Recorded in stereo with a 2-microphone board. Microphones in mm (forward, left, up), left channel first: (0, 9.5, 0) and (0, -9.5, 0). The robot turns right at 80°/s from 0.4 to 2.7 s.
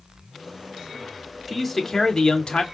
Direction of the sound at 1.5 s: 20° right.